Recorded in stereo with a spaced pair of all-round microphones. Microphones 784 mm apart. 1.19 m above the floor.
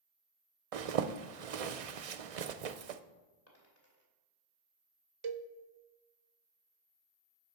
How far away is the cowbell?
About 0.5 m.